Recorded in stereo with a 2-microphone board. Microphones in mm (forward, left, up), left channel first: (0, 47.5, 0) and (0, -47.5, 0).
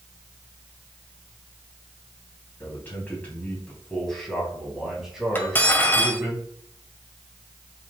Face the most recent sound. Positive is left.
turn(degrees=20)  # may be behind; listen again after turning